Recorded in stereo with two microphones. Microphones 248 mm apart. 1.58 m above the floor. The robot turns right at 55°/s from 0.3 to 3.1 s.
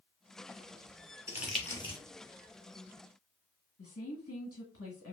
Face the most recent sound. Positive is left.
turn(degrees=65)  # may be behind; listen again after turning